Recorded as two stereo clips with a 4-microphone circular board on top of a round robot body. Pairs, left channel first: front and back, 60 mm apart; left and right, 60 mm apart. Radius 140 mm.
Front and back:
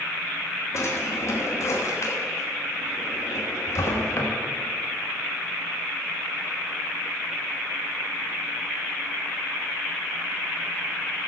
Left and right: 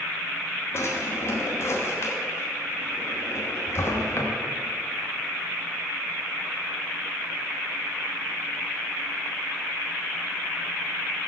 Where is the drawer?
40° left, 1.1 m.